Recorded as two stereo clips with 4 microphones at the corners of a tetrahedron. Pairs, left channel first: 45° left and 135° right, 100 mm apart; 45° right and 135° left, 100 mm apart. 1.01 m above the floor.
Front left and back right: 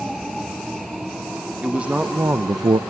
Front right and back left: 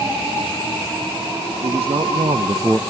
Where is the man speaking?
145° left, 1.7 m; by 2.8 s 125° right, 0.5 m.